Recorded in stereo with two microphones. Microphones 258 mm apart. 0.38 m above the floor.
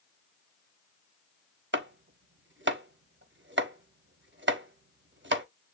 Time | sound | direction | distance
1.7 | chopping | 50° right (ahead or behind) | 0.6 m